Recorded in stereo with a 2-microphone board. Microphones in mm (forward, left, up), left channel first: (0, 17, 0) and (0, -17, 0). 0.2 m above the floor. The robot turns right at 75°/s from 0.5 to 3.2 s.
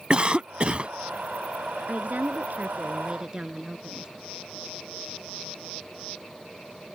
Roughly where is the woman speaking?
Behind right.